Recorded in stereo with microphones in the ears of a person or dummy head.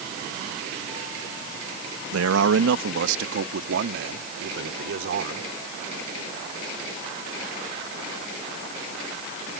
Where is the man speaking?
85° right; by 5.5 s 65° right (ahead or behind).